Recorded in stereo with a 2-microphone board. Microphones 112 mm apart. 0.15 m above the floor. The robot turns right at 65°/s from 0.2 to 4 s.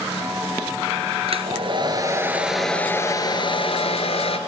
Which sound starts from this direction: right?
A hair dryer, at 1.3 s.